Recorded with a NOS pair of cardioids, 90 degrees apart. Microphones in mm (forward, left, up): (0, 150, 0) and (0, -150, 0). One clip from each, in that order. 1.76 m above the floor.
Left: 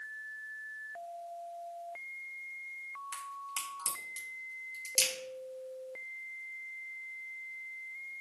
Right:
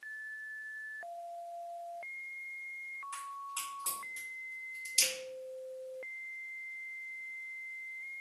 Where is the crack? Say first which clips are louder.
Left 1 dB; 60° left, 1.6 m.